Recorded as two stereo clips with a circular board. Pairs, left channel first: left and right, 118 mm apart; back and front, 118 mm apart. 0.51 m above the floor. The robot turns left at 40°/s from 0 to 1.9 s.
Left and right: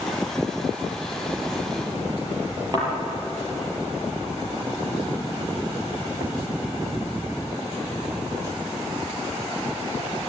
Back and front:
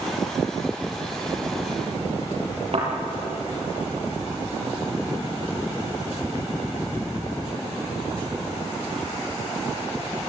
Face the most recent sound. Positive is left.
turn(degrees=-35)